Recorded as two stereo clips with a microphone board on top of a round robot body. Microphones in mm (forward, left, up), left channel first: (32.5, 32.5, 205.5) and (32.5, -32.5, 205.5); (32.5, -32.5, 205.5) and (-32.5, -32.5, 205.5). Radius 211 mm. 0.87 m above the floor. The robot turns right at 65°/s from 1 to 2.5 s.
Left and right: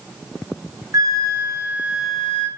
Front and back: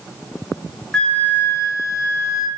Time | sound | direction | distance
0.9 | a flute | 75° right | 1.3 m